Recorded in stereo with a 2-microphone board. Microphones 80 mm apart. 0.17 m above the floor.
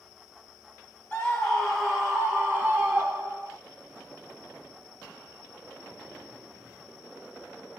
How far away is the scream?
About 1.2 m.